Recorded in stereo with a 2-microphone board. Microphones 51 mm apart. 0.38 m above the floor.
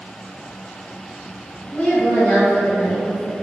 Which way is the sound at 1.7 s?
40° left (ahead or behind).